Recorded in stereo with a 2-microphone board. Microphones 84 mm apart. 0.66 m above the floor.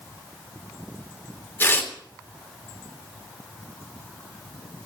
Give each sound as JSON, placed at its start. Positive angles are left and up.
{"t": 1.6, "sound": "tearing paper", "side_deg": 25, "distance_m": 2.0}